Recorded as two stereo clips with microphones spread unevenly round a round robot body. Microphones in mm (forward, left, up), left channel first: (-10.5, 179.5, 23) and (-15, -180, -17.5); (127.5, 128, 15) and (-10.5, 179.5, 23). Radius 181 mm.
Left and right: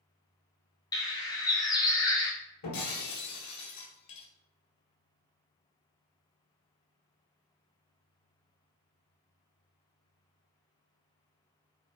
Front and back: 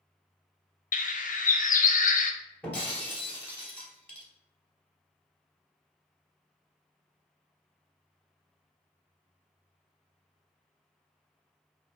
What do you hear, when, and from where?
0.9 s a bird: 10° left, 0.6 m
2.6 s breaking glass: 60° left, 1.8 m